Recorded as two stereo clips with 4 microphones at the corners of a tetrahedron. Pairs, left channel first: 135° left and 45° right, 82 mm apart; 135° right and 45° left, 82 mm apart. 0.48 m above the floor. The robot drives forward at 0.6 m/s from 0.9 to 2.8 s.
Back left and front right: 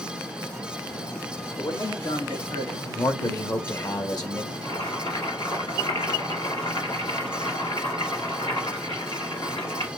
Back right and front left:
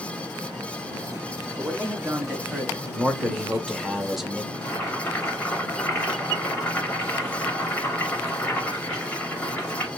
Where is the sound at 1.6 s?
115° left, 4.5 m; by 2.9 s 125° left, 4.5 m.